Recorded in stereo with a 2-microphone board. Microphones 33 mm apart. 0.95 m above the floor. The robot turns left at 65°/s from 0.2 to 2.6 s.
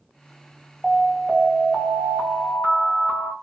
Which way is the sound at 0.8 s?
10° left.